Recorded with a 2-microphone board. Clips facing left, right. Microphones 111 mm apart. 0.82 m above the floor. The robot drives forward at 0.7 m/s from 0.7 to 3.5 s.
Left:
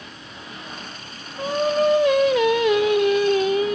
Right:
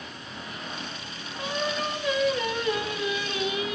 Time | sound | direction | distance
1.4 | singing | 40° left (ahead or behind) | 1.0 m